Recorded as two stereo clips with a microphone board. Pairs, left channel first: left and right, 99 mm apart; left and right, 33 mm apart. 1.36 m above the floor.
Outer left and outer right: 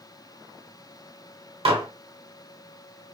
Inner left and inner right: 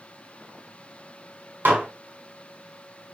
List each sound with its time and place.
1.6 s dishes clattering: 75° right (ahead or behind), 1.5 m